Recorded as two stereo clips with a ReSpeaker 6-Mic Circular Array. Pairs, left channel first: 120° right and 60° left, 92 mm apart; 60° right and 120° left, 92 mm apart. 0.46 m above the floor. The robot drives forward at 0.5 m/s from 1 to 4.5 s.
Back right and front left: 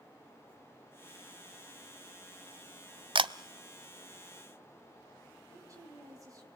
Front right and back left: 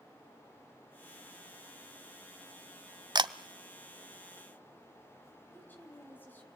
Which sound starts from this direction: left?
A camera shutter, at 3.1 s.